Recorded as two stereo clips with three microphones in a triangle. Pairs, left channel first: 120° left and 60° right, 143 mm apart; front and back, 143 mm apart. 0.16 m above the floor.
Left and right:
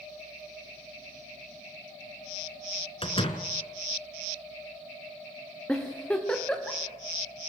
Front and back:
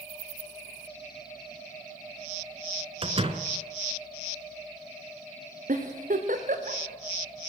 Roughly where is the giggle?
Behind.